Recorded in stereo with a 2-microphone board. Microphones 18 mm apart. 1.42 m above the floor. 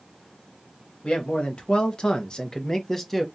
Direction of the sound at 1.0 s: 75° left (ahead or behind).